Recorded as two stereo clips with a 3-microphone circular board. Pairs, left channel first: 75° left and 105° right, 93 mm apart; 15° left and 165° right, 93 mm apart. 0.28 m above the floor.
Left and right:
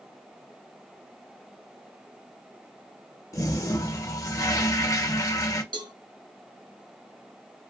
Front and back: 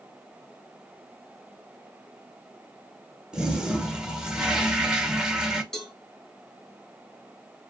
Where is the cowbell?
70° right, 0.7 m.